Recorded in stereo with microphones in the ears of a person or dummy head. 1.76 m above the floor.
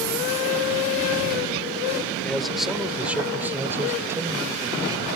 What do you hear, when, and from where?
2.2 s a man speaking: 5° left (ahead or behind); by 5.1 s 20° right (ahead or behind)